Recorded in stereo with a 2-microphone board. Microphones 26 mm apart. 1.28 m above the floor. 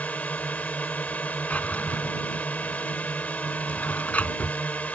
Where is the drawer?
70° left (ahead or behind).